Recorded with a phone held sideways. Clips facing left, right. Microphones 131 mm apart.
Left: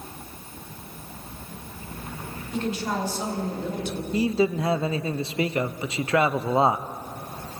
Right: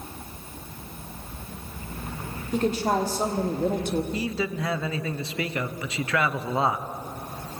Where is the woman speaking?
45° right (ahead or behind), 3.5 m; by 4.0 s 50° right (ahead or behind), 1.7 m.